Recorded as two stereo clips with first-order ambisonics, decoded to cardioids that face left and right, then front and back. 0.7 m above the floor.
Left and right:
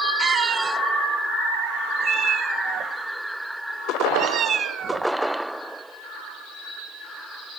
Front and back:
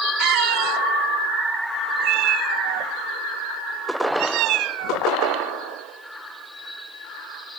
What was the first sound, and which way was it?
A cat meowing, 155° right.